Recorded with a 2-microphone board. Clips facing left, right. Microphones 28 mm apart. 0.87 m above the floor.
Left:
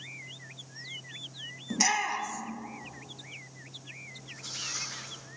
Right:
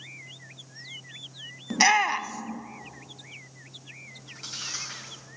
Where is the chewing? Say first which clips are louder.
Right 4 dB; 60° right (ahead or behind), 4 m.